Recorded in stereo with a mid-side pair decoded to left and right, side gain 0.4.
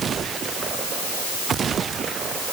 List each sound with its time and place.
Only background noise.